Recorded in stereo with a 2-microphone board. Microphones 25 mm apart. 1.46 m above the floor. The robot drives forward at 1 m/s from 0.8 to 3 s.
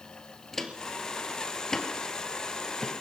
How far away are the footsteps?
About 2.0 m.